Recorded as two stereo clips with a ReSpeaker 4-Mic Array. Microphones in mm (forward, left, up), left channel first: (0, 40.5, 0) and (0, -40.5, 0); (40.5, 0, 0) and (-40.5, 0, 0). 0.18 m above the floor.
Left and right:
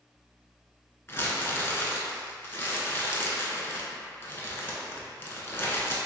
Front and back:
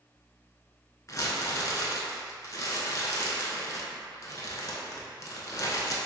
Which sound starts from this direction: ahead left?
Crumpling, at 1.1 s.